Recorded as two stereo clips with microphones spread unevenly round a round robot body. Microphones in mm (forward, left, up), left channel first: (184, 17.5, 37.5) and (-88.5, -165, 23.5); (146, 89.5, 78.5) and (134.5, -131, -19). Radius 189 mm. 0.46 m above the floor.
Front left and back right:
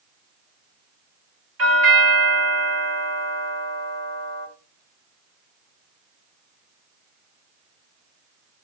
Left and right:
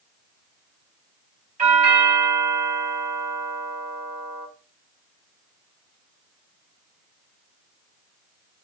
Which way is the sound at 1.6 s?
125° right.